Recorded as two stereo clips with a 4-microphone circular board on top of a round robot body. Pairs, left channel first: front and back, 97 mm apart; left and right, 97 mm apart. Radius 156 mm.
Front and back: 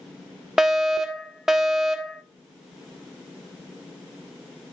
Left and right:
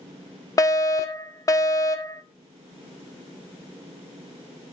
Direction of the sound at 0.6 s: 95° left.